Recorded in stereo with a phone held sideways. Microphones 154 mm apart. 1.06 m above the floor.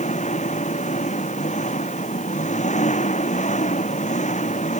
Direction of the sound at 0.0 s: 50° left (ahead or behind).